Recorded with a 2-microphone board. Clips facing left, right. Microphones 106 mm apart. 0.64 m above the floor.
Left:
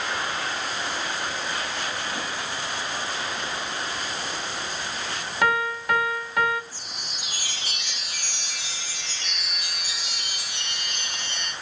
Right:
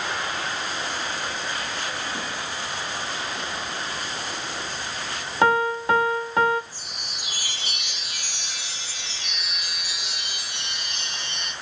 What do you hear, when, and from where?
5.4 s a piano: 30° right (ahead or behind), 0.5 m
6.7 s a chime: 85° right, 4.5 m